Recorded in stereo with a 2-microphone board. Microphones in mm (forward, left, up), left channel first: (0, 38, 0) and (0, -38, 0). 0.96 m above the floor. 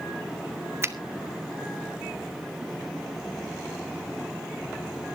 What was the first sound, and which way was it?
A finger snap, 35° right (ahead or behind).